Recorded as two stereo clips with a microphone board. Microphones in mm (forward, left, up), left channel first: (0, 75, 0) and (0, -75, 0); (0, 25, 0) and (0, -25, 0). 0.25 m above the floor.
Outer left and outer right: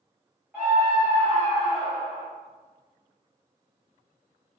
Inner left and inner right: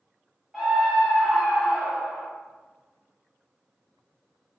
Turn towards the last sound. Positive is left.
turn(degrees=-25)  # may be behind; listen again after turning